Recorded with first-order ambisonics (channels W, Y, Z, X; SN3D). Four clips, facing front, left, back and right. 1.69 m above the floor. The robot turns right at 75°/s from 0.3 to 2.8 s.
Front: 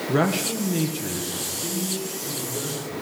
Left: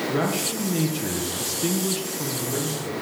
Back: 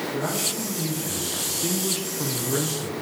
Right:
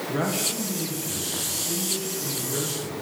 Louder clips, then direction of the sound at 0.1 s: Right 1 dB, front 8 dB; 5° left.